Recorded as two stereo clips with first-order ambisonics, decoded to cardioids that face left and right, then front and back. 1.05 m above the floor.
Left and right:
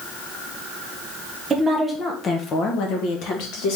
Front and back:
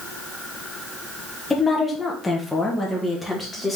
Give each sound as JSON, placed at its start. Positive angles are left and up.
{"t": 1.5, "sound": "a woman speaking", "azimuth_deg": -50, "distance_m": 0.7}